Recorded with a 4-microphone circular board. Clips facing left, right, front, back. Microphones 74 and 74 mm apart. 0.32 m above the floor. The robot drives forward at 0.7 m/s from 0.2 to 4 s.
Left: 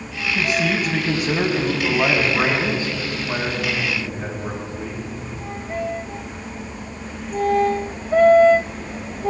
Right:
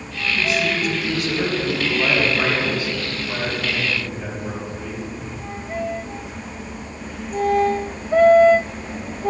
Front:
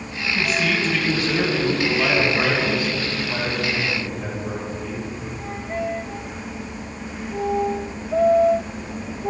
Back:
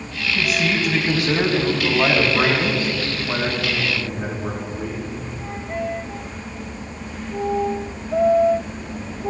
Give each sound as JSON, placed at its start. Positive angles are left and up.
{"t": 0.3, "sound": "a man speaking", "azimuth_deg": 95, "distance_m": 1.9}